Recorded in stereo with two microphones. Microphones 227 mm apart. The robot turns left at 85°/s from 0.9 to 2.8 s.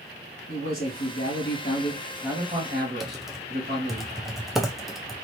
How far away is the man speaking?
About 1.5 m.